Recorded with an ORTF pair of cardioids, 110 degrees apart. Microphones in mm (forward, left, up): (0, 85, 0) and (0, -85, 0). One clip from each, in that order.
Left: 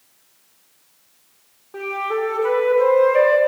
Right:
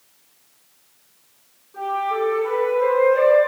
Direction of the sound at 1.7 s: 65° left.